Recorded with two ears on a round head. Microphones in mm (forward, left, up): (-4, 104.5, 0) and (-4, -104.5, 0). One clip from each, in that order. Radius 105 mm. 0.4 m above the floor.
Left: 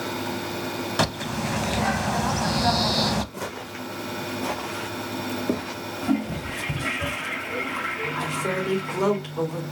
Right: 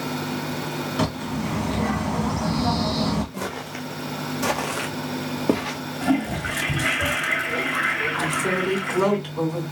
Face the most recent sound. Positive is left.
turn(degrees=10)  # may be behind; listen again after turning